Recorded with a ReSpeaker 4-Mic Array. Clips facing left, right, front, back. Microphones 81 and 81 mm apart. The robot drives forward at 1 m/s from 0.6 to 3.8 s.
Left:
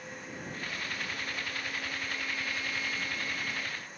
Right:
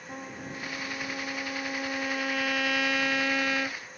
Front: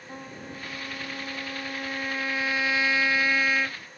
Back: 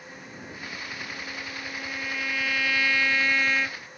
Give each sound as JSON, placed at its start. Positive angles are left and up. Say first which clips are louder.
{"t": 0.1, "sound": "a trumpet", "louder": "right 5 dB, front 4 dB", "azimuth_deg": -45}